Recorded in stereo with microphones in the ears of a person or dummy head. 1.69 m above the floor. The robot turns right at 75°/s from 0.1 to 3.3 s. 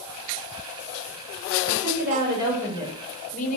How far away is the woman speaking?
About 8 m.